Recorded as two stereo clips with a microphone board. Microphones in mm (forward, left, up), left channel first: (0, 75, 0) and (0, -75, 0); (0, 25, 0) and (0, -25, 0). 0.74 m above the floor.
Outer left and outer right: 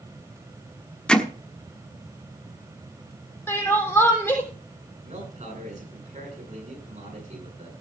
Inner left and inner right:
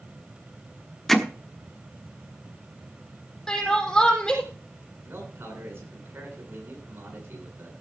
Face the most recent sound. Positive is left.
turn(degrees=-50)  # may be behind; listen again after turning